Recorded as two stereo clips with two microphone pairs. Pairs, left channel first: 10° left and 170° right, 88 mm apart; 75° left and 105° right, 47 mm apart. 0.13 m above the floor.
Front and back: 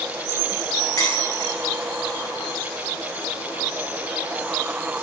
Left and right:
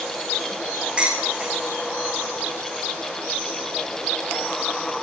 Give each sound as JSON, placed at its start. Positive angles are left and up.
{"t": 1.0, "sound": "dishes clattering", "azimuth_deg": -40, "distance_m": 6.5}